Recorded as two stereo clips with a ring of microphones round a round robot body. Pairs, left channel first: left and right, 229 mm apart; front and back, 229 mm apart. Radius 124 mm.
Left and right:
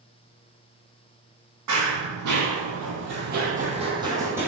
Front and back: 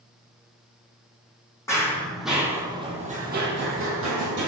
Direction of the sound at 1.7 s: 80° right.